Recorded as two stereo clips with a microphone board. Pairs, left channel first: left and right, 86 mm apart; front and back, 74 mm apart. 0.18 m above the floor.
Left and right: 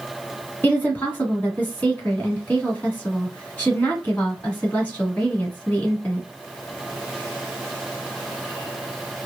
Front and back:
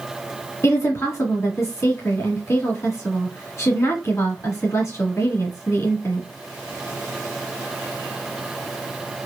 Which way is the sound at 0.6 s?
25° left.